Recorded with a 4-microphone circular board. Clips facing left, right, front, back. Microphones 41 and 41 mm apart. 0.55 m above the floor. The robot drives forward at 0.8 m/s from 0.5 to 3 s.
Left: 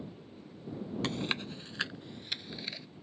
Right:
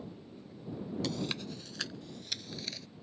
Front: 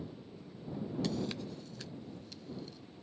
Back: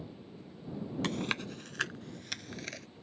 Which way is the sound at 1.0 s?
140° left.